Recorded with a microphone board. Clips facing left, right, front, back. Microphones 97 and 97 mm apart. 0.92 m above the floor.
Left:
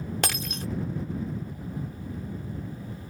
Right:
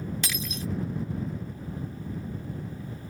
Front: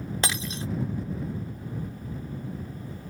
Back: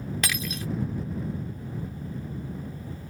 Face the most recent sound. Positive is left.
turn(degrees=60)